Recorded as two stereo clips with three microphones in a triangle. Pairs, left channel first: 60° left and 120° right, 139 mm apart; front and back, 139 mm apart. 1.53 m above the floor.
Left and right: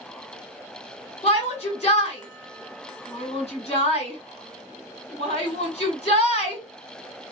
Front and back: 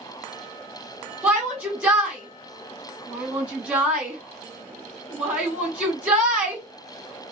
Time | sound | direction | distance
1.2 | a shout | 100° left | 2 m